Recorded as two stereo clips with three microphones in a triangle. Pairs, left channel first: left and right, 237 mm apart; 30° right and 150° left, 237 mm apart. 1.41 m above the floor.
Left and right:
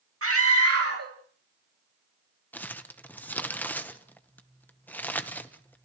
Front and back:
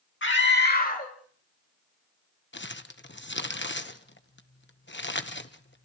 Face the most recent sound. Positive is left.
turn(degrees=5)